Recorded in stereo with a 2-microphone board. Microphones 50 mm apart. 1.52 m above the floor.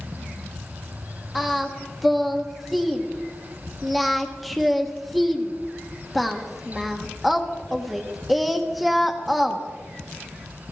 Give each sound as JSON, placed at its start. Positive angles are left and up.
{"t": 1.4, "sound": "singing", "side_deg": 0, "distance_m": 0.9}